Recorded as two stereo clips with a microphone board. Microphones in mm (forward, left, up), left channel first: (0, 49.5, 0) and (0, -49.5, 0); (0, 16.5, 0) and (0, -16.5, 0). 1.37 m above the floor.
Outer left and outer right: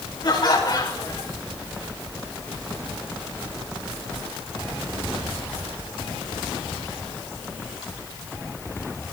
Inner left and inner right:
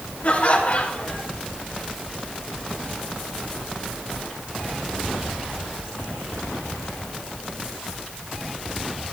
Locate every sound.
0.2 s laughter: 50° left (ahead or behind), 5.5 m